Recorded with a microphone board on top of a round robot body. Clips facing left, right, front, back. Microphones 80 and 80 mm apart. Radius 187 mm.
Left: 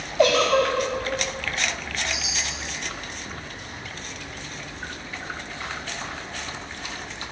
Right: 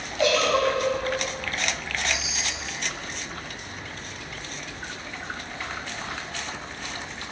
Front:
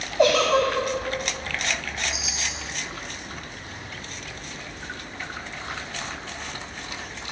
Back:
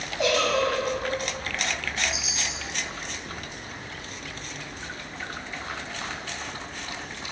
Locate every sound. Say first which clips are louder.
0.2 s a giggle: left 3 dB, front 5 dB; 45° left, 0.5 m
2.1 s a chime: right 1 dB, even; 90° left, 1.4 m